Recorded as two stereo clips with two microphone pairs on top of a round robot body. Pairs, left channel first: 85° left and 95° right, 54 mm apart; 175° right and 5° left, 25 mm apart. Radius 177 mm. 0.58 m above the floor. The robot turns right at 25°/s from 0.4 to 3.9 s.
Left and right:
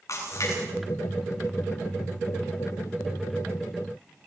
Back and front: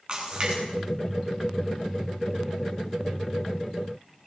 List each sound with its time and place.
0.1 s a splash: 55° left, 8.5 m; by 0.6 s 60° left, 8.5 m